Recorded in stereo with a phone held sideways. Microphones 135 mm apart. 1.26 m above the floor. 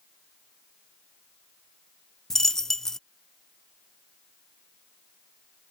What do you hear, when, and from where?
2.3 s a dropped coin: 5° left (ahead or behind)